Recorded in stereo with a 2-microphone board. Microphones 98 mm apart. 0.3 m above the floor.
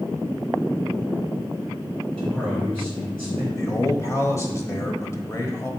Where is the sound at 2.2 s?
10° left (ahead or behind), 3 m.